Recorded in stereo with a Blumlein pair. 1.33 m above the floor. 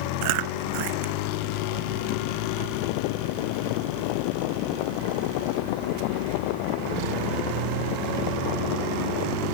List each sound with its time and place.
0.2 s chewing: 45° right